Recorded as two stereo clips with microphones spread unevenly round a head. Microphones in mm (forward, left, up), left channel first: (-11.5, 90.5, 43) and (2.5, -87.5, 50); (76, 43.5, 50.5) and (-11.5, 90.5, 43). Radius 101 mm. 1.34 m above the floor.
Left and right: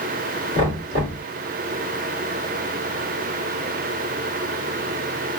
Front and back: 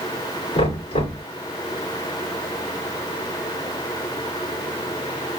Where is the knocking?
25° right, 2.5 m.